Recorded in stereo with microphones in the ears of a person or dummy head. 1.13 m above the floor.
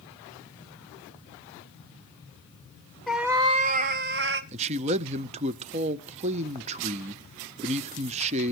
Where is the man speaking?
30° right (ahead or behind), 0.7 m.